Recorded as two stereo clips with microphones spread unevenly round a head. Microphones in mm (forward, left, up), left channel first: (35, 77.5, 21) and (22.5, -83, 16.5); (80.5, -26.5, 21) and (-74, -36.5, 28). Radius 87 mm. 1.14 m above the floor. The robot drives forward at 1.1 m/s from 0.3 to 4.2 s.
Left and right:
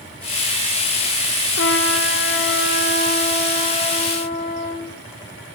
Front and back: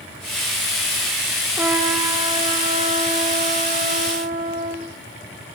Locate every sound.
1.6 s a trumpet: 105° left, 3 m; by 4.9 s 140° left, 4.5 m